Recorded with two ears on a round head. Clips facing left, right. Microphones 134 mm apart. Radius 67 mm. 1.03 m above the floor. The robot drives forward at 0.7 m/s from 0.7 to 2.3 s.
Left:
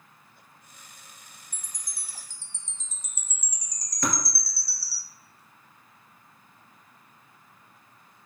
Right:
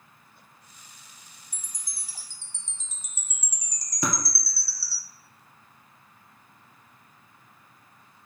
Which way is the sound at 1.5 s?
75° right (ahead or behind).